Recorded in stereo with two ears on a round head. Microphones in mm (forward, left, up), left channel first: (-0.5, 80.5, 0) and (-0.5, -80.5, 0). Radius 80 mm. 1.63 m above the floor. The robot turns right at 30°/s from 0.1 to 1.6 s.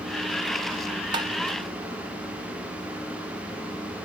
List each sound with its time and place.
1.1 s tapping: 25° right (ahead or behind), 0.5 m; by 1.3 s 20° right (ahead or behind), 0.5 m